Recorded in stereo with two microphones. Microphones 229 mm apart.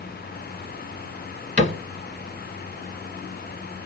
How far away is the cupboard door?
About 1.4 m.